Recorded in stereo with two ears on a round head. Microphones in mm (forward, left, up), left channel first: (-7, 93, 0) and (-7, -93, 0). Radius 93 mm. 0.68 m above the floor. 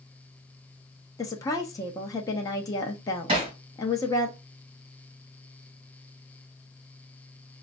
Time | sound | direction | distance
1.2 | a woman speaking | 15° left (ahead or behind) | 0.5 m
3.3 | hammering | 25° right (ahead or behind) | 1.4 m